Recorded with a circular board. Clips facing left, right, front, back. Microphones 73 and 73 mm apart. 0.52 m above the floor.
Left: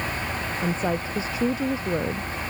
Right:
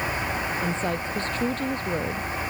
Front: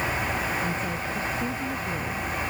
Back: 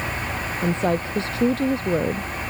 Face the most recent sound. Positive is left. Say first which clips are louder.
# left 1 dB, back 7 dB
turn(degrees=170)